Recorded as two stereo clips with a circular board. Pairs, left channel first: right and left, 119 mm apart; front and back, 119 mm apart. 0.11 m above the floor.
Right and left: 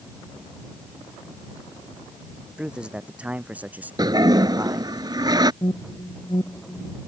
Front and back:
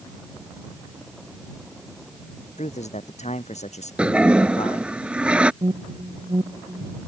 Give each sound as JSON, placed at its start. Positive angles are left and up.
{"t": 2.6, "sound": "a man speaking", "azimuth_deg": 5}
{"t": 4.0, "sound": "a toilet flushing", "azimuth_deg": 105}
{"t": 5.6, "sound": "an alarm", "azimuth_deg": -135}